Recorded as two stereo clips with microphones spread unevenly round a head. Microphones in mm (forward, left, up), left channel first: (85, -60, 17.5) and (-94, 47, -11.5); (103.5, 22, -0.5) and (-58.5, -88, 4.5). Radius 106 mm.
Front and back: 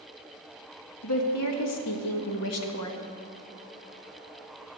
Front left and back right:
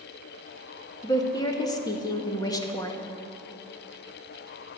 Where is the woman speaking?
35° right, 1.7 m.